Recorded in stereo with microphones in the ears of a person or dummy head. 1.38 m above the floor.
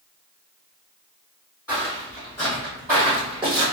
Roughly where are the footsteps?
Centre.